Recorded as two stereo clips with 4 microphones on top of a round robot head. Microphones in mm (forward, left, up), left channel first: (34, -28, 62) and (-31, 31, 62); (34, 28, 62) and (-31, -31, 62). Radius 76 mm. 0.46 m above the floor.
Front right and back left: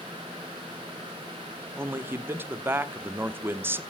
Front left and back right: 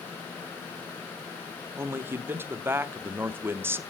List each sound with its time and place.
1.8 s a man speaking: straight behind, 0.9 m